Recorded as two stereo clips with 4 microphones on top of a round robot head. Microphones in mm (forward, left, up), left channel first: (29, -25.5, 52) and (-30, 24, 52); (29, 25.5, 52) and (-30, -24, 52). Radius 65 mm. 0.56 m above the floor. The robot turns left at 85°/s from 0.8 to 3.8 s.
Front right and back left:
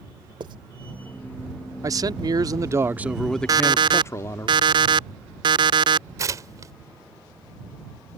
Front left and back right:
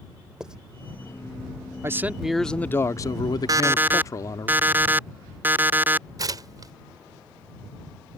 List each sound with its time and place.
0.4 s writing: 140° left
1.8 s a man speaking: 175° left; by 4.5 s 5° left
3.5 s an alarm clock: straight behind; by 6.1 s 155° left
6.2 s tearing paper: 175° right